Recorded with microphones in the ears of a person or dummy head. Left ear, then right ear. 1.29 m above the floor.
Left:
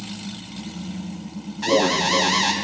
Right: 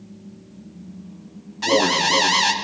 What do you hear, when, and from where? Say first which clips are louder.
1.6 s an alarm: right 1 dB; 10° right (ahead or behind), 0.6 m